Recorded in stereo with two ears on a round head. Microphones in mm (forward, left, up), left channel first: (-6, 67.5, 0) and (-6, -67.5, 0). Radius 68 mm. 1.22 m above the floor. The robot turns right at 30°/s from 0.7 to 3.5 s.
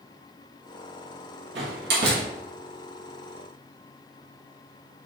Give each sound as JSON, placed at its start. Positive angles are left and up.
{"t": 1.6, "sound": "a door slam", "side_deg": -85, "distance_m": 1.5}